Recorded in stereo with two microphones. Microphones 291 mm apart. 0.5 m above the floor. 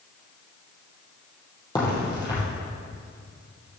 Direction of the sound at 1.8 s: 15° left (ahead or behind).